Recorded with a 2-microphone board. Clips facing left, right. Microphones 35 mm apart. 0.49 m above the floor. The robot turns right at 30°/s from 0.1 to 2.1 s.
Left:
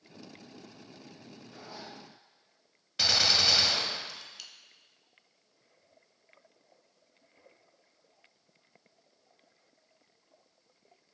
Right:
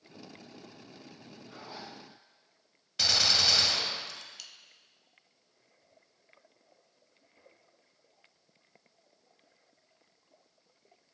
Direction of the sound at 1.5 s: 35° right (ahead or behind).